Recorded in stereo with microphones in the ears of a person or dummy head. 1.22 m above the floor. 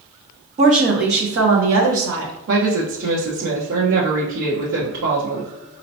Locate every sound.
0.6 s a woman speaking: 35° right (ahead or behind), 0.8 m; by 2.3 s 75° right (ahead or behind), 1.3 m
2.5 s a woman speaking: 70° right (ahead or behind), 1.1 m